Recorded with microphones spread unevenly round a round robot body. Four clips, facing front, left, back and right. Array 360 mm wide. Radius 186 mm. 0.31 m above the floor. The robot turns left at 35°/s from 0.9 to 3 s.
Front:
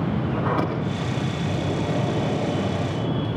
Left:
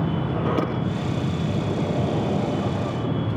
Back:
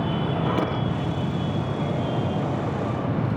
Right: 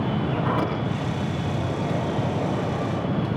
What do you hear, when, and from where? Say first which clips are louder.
0.3 s a sliding door: left 2 dB, front 1 dB; 110° left, 8 m; by 3.3 s 40° left, 8 m